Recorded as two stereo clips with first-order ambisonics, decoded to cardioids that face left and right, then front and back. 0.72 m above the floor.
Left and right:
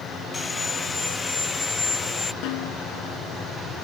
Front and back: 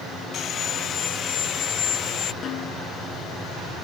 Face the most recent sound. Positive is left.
turn(degrees=60)